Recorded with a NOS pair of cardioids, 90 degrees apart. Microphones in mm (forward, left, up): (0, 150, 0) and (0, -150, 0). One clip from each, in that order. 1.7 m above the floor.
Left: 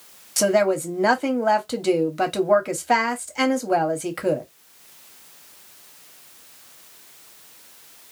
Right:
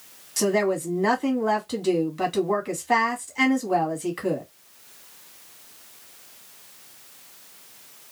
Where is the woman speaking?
30° left, 1.2 m.